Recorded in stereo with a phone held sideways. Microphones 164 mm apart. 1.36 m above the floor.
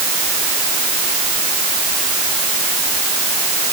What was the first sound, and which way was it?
Only background noise.